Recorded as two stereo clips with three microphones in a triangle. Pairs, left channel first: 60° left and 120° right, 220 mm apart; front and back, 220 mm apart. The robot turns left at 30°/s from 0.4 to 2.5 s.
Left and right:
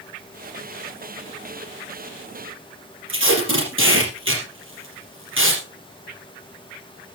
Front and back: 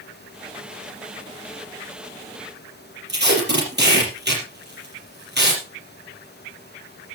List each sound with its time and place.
3.1 s tape being pulled: 140° right, 5 m